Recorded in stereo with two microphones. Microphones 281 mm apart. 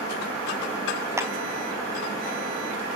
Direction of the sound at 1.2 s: 10° right (ahead or behind).